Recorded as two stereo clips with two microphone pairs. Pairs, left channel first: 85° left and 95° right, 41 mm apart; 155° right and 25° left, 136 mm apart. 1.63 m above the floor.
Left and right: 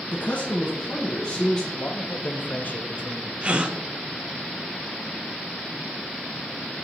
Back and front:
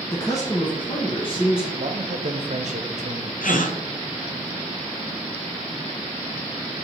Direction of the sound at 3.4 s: 155° right.